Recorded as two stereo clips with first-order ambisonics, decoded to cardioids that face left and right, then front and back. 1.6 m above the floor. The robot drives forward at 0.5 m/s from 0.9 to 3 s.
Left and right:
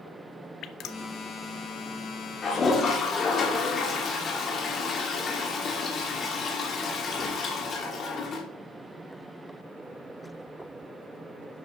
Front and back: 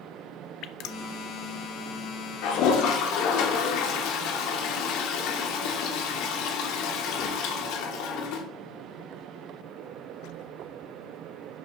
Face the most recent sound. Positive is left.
turn(degrees=25)